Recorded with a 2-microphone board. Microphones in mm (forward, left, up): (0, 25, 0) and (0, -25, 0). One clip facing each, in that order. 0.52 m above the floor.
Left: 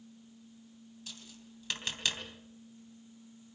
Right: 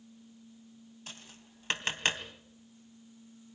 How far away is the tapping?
About 2.5 m.